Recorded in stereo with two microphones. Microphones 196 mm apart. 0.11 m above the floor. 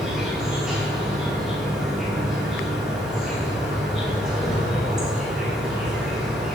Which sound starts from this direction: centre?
An insect, at 0.0 s.